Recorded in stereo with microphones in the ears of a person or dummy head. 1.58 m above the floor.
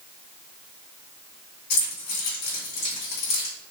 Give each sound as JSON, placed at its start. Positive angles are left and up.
{"t": 1.7, "sound": "keys jangling", "side_deg": 60, "distance_m": 1.5}